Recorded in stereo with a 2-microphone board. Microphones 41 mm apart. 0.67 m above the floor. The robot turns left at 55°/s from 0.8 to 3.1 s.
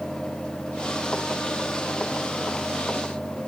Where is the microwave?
I don't hear a microwave.